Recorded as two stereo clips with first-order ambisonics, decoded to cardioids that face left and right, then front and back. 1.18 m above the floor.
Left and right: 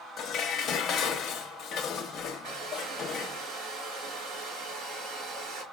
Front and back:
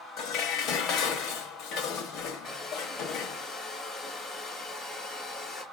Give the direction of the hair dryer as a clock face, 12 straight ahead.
2 o'clock.